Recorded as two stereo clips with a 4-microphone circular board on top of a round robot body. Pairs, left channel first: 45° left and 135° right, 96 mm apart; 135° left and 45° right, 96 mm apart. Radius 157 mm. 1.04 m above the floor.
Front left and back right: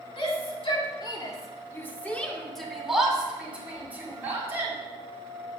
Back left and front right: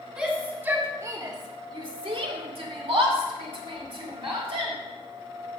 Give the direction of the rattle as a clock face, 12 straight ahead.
No rattle in this recording.